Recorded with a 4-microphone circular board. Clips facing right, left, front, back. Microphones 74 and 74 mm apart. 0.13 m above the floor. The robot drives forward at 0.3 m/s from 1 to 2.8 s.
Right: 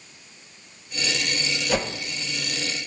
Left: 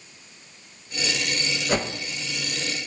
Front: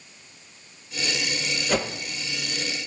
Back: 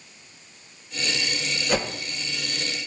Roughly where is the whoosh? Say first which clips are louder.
Even, even; left.